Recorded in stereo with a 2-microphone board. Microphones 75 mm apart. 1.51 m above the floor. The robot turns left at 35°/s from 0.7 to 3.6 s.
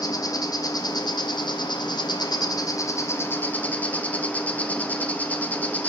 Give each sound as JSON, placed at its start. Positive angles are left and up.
{"t": 0.0, "sound": "an insect", "azimuth_deg": 120, "distance_m": 0.8}